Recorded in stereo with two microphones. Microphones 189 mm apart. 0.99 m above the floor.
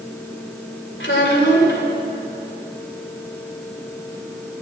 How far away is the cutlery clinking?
No cutlery clinking in this recording.